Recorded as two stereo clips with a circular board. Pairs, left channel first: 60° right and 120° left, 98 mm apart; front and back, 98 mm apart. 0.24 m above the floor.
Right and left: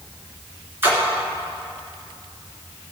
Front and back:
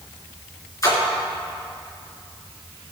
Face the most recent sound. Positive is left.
turn(degrees=55)